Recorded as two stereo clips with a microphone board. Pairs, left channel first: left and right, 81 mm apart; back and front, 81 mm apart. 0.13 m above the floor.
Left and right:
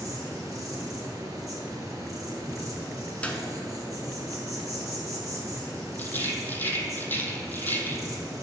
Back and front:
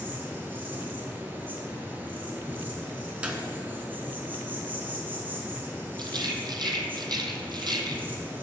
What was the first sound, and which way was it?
An insect, 60° right.